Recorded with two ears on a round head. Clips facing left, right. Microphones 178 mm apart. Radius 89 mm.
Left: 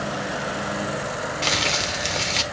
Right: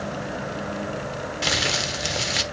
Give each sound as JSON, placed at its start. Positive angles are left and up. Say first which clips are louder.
{"t": 1.4, "sound": "crumpling", "louder": "right 1 dB", "side_deg": -10, "distance_m": 1.0}